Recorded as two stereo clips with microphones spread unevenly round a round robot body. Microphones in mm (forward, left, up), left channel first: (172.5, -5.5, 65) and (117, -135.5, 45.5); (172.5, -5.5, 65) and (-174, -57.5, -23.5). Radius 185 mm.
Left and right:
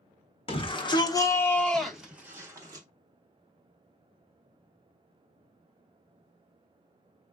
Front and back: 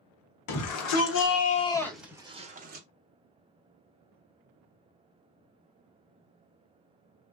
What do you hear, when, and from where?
0.5 s a shout: 25° left, 1.2 m; by 2.9 s 155° right, 1.2 m